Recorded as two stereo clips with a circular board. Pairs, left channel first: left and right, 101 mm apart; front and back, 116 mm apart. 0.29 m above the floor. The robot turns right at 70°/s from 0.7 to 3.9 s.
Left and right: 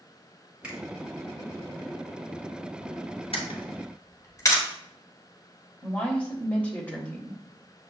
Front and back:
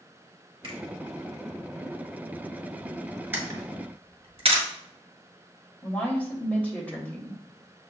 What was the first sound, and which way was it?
A finger snap, 165° right.